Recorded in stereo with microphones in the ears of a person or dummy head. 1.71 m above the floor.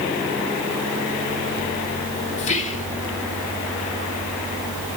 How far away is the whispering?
About 2 m.